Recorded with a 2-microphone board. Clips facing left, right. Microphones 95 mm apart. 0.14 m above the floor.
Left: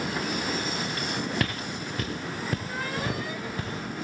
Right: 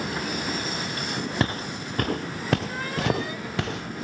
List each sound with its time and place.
1.4 s footsteps: 30° right (ahead or behind), 0.6 m; by 4.0 s 75° right (ahead or behind), 1.4 m